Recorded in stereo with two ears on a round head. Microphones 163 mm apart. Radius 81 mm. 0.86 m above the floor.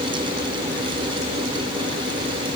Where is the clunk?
No clunk in this recording.